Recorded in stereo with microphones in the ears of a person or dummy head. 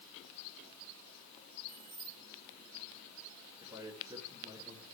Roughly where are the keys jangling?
Right.